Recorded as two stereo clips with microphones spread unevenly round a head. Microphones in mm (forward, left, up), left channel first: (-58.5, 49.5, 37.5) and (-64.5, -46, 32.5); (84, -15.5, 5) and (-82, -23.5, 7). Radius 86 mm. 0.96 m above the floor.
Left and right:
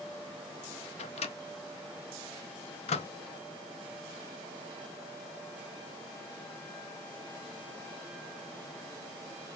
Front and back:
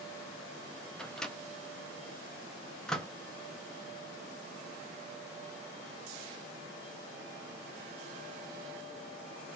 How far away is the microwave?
About 0.7 m.